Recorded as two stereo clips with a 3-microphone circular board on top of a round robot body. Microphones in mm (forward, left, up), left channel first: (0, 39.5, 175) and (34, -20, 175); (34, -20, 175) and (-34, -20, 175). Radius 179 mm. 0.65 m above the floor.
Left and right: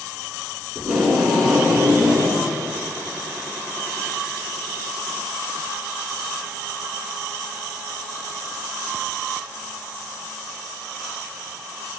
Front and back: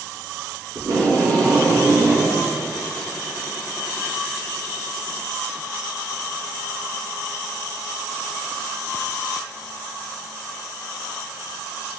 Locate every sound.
0.8 s tape being pulled: 150° right, 7 m